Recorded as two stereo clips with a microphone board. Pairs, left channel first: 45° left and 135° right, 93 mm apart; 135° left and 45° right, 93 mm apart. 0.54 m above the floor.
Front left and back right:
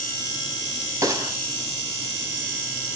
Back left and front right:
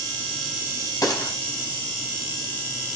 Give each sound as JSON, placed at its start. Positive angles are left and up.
{"t": 1.0, "sound": "a gunshot", "azimuth_deg": 175, "distance_m": 4.5}